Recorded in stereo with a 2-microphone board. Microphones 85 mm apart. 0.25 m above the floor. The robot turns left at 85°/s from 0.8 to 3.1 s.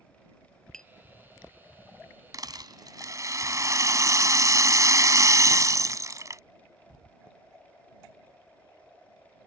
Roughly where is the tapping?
Centre.